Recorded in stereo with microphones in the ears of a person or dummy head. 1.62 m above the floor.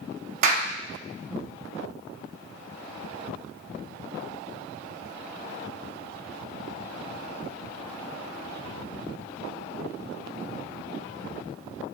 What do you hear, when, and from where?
0.4 s a clap: 55° right (ahead or behind), 0.7 m